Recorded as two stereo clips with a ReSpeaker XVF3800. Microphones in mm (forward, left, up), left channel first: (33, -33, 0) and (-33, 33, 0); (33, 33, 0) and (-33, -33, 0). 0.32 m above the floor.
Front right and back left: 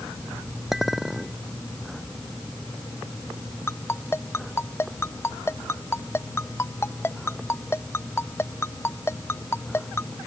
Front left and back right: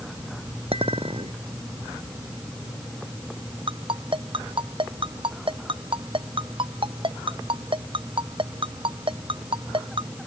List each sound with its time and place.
0.7 s a clink: 140° right
3.7 s a ringtone: 110° right